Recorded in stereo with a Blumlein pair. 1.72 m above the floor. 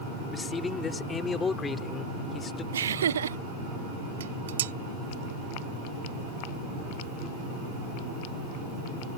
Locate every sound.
0.3 s a man speaking: 15° left
2.7 s laughter: 65° right
4.2 s dishes clattering: 60° right